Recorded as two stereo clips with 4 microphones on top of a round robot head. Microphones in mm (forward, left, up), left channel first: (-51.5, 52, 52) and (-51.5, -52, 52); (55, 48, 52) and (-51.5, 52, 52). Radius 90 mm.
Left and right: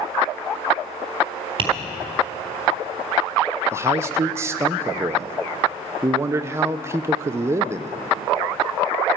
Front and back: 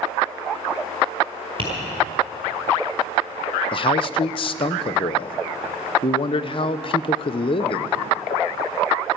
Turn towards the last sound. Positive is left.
turn(degrees=-25)